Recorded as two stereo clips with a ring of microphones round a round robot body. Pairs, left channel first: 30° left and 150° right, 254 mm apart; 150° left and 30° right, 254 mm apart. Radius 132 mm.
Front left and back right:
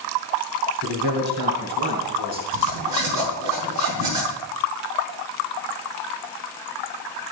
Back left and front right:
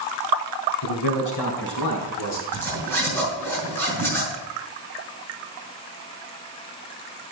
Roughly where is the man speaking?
Behind.